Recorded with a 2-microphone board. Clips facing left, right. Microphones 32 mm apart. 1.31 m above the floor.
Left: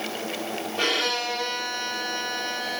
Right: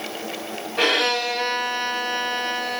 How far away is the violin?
About 2.5 m.